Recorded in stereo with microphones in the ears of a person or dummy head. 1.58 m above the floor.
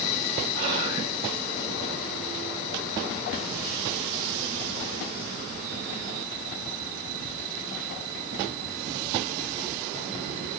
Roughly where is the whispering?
Right.